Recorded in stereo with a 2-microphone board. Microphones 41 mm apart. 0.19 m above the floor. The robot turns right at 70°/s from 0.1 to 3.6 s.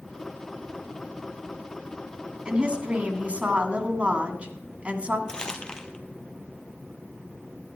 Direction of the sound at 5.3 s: 20° left (ahead or behind).